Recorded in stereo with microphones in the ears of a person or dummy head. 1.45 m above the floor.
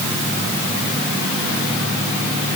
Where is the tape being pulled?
I don't hear tape being pulled.